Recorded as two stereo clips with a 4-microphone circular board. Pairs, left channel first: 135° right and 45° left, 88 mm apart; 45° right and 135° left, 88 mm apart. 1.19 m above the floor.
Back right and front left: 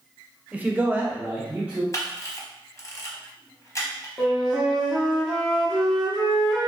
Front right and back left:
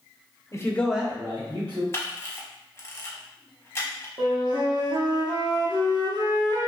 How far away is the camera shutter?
About 0.7 m.